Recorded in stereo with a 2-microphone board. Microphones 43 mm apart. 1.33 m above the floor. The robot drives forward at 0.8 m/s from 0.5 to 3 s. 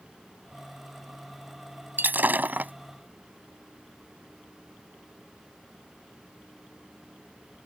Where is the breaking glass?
45° right (ahead or behind); by 2.7 s 40° right (ahead or behind).